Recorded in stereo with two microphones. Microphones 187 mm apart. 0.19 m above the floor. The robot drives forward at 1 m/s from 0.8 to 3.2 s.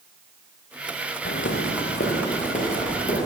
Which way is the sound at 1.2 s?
70° left (ahead or behind).